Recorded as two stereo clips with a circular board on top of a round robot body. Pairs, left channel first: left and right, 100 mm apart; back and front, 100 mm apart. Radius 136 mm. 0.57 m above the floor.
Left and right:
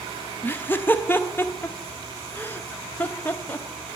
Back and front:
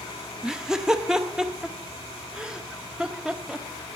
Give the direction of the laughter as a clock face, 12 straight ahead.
10 o'clock.